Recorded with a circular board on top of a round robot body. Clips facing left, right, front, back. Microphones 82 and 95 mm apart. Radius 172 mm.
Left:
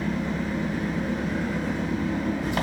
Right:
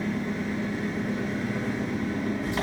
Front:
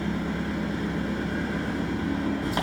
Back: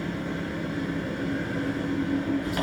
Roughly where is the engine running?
Ahead left.